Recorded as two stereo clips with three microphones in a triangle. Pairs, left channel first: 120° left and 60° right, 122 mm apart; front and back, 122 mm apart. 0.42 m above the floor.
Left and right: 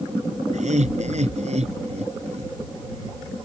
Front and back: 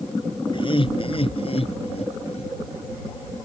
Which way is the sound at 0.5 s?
45° right.